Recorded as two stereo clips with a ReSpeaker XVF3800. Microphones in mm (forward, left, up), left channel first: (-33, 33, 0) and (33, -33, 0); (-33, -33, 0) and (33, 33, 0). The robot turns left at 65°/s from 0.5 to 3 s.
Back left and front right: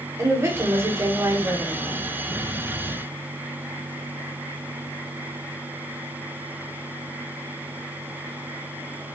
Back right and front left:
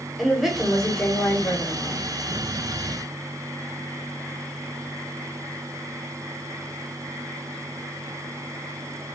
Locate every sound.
0.2 s a woman speaking: 35° right, 1.1 m; by 2.0 s 135° right, 1.1 m